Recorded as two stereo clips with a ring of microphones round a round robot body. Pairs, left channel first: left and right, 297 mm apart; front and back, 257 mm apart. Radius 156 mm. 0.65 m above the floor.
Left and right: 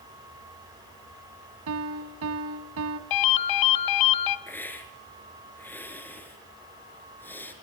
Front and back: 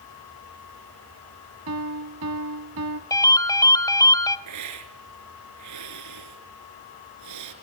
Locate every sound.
1.7 s a piano: 135° right, 1.5 m
3.1 s a ringtone: 75° left, 1.6 m
4.5 s a hiss: 175° left, 4 m